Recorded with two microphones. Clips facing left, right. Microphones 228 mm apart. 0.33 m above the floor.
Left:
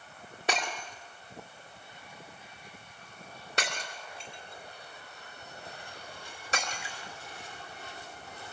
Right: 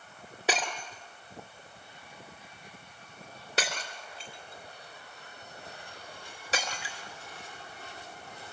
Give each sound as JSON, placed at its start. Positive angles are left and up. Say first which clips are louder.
{"t": 0.5, "sound": "breaking glass", "louder": "right 2 dB", "side_deg": -5, "distance_m": 2.5}